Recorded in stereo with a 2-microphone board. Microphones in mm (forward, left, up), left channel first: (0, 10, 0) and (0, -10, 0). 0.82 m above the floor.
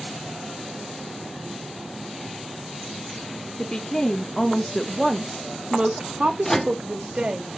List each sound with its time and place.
3.6 s a woman speaking: 45° left (ahead or behind), 1.2 m; by 7.4 s 60° right (ahead or behind), 1.9 m
6.4 s a microwave: 15° left (ahead or behind), 0.8 m